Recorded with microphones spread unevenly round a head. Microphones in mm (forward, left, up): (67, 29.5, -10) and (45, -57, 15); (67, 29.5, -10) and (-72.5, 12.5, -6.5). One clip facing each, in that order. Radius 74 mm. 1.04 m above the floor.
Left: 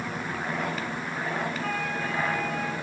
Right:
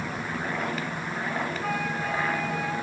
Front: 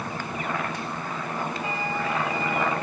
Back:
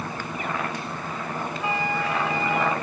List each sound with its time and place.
1.6 s a flute: straight behind, 1.8 m